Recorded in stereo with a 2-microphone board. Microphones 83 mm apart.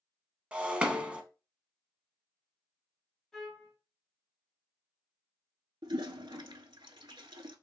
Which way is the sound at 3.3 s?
5° left (ahead or behind).